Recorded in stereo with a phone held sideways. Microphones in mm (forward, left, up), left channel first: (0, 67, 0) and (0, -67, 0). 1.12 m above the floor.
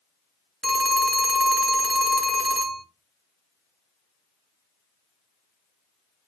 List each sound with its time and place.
0.6 s a phone ringing: centre (ahead or behind), 0.6 m